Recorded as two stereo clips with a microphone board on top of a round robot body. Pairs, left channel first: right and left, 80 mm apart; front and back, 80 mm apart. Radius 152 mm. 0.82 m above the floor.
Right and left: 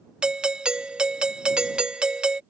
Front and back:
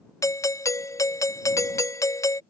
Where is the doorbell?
15° left.